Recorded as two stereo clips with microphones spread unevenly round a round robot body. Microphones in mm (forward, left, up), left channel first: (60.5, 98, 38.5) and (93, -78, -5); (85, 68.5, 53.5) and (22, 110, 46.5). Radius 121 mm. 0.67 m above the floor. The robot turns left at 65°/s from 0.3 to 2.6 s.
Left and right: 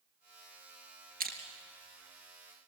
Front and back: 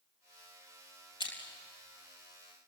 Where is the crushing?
40° right, 4 m; by 1.4 s 50° right, 4 m.